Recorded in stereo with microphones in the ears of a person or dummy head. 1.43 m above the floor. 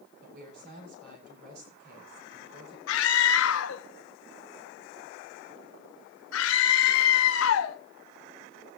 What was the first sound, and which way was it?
A woman speaking, 60° right (ahead or behind).